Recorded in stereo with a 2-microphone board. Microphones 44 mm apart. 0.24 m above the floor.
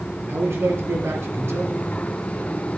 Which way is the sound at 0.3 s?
65° right (ahead or behind).